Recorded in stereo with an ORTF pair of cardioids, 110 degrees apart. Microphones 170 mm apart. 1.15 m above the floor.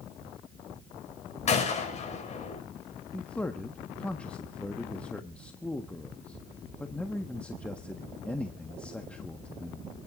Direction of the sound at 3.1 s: 5° left.